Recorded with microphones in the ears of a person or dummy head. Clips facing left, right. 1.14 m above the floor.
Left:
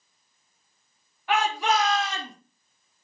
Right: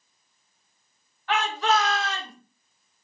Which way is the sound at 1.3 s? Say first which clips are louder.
Even; 10° left (ahead or behind).